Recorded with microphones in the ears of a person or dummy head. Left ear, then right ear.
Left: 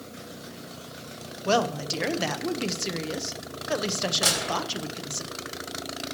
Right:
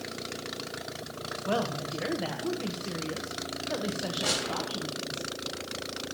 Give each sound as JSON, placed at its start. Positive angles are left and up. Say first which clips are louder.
{"t": 1.4, "sound": "a woman speaking", "louder": "left 7 dB", "side_deg": 80, "distance_m": 1.0}
{"t": 4.2, "sound": "a gunshot", "louder": "left 2 dB", "side_deg": 60, "distance_m": 4.0}